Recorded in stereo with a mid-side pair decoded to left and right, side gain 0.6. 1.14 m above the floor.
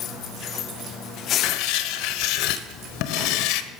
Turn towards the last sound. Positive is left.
turn(degrees=70)